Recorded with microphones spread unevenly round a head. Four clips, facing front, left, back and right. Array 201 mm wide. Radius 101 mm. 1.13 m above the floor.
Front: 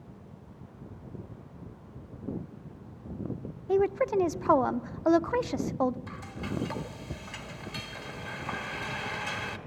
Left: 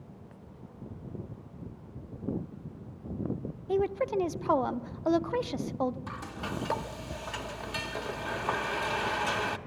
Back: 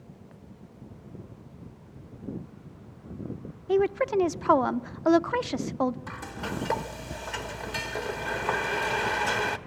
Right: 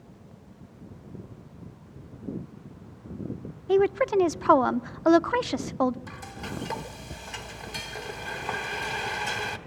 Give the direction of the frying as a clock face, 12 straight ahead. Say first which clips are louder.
Left 1 dB, back 2 dB; 7 o'clock.